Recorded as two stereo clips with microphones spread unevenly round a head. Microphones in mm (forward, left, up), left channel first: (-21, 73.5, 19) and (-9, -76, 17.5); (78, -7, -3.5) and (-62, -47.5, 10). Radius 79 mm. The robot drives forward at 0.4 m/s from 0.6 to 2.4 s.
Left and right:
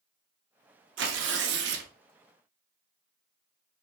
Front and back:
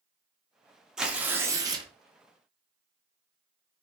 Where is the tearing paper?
75° right, 0.8 m; by 1.9 s 105° right, 0.8 m.